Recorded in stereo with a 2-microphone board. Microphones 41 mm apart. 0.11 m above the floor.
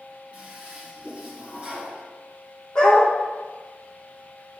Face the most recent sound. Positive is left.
turn(degrees=25)  # may be behind; listen again after turning